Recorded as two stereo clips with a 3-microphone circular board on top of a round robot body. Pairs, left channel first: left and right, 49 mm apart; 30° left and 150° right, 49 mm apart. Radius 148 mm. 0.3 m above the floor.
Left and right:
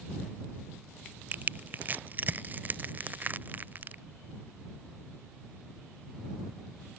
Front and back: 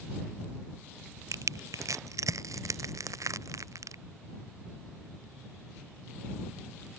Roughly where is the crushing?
Behind right.